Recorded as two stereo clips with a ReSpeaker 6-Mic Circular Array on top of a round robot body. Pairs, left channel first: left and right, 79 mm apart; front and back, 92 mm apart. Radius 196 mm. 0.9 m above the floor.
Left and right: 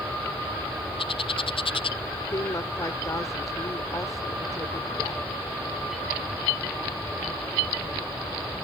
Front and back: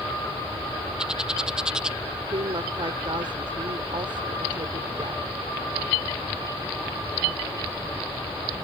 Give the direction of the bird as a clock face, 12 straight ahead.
9 o'clock.